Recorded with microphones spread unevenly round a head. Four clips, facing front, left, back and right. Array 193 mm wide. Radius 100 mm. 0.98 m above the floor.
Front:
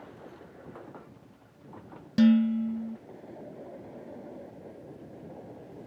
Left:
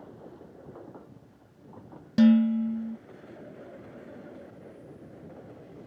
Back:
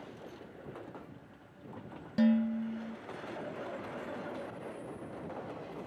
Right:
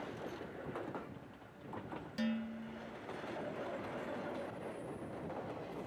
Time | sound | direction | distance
2.2 | dishes clattering | 60° left | ?